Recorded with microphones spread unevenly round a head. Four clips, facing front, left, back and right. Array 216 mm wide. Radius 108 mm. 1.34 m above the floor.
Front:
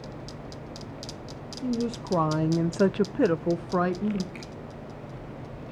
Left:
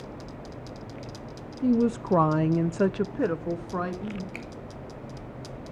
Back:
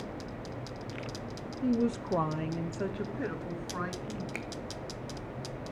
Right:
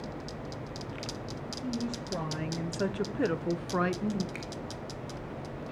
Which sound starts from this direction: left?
A woman speaking, at 1.6 s.